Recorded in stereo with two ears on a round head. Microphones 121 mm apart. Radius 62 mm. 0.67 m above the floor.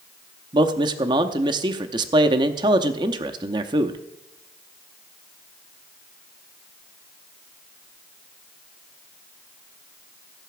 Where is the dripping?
I don't hear dripping.